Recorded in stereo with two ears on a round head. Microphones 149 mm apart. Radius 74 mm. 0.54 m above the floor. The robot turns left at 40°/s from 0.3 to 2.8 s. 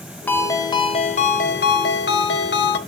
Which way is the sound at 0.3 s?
170° left.